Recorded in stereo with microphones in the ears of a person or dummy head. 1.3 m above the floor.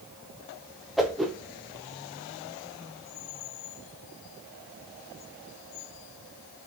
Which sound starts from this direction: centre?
A whoosh, at 1.0 s.